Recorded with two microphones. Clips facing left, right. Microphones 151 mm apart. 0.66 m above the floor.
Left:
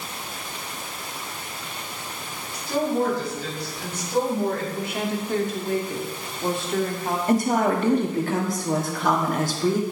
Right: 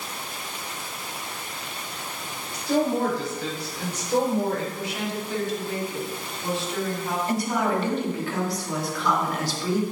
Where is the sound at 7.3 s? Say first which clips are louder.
Left 5 dB; 45° left (ahead or behind), 1.5 m.